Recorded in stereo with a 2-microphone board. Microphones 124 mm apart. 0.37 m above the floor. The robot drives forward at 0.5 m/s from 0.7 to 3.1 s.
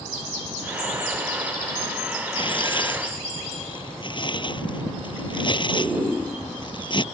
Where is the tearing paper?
40° left (ahead or behind).